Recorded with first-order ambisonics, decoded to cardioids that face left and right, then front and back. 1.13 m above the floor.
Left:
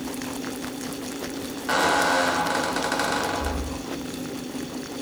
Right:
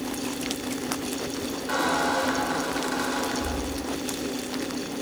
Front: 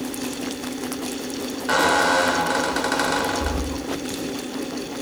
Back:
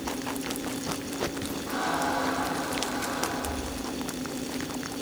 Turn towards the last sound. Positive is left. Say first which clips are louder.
# left 4 dB, front 11 dB
turn(degrees=30)